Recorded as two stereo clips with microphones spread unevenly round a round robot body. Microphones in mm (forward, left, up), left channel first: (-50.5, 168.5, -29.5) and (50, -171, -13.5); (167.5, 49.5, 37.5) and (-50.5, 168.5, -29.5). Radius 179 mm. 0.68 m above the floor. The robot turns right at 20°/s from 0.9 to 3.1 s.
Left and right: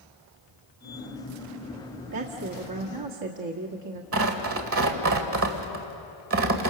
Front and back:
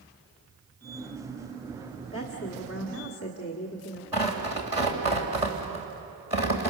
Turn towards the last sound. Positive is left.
turn(degrees=-130)